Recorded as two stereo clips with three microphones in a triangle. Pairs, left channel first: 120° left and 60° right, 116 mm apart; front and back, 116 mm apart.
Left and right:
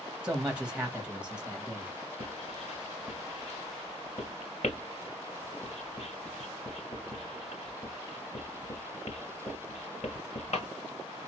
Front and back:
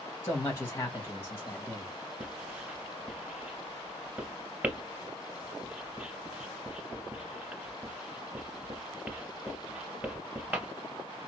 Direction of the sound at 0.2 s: 5° left.